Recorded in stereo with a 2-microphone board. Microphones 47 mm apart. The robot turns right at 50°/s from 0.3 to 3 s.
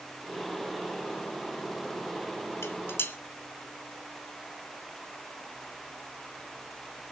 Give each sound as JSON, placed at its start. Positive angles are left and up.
{"t": 2.6, "sound": "dishes clattering", "side_deg": 65, "distance_m": 1.5}